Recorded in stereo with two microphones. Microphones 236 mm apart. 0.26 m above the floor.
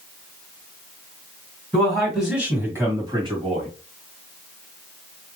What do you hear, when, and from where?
1.7 s a man speaking: 5° left (ahead or behind), 1.9 m; by 3.7 s 25° right (ahead or behind), 1.4 m